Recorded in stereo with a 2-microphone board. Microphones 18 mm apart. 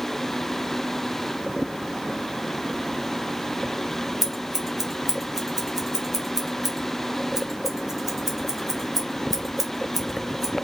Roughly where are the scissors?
Centre.